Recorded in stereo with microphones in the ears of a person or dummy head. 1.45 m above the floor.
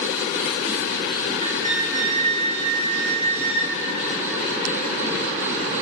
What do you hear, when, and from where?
1.4 s a flute: 35° right (ahead or behind), 1.4 m